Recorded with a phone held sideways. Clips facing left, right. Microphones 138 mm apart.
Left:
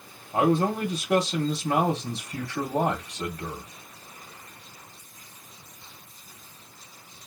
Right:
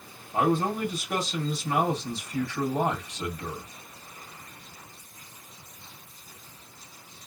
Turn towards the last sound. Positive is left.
turn(degrees=60)  # may be behind; listen again after turning